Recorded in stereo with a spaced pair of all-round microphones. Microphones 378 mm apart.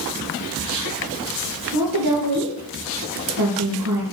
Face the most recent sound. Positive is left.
turn(degrees=-75)  # may be behind; listen again after turning